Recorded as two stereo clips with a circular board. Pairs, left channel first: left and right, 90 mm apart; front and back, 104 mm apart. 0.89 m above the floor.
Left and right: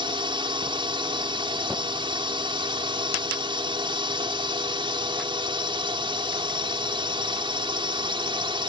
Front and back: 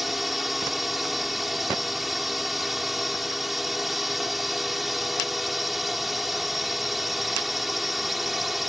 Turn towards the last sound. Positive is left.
turn(degrees=-90)